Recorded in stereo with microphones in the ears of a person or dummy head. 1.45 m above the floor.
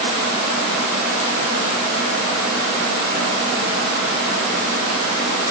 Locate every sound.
Only background noise.